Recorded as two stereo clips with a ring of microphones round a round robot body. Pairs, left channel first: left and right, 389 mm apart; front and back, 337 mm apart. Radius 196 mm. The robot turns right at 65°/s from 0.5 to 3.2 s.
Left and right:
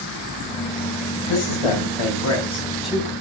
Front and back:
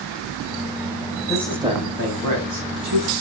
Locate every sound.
1.3 s a man speaking: 75° left, 4 m; by 3.1 s 165° right, 4 m